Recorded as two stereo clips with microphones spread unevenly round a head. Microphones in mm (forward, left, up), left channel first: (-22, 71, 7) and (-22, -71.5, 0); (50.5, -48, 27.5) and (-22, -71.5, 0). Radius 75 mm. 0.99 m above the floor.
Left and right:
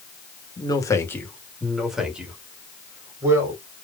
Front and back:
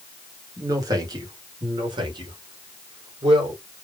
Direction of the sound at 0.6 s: 150° left.